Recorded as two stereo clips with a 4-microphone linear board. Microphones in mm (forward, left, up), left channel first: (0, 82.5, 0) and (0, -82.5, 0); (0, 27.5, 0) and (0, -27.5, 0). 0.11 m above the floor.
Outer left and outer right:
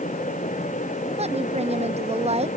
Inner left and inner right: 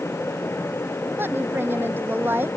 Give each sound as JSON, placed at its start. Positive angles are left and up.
{"t": 1.2, "sound": "a woman speaking", "side_deg": -40}